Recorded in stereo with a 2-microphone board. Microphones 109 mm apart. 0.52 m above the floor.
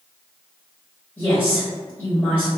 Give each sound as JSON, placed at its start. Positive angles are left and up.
{"t": 1.2, "sound": "a woman speaking", "side_deg": 20, "distance_m": 1.4}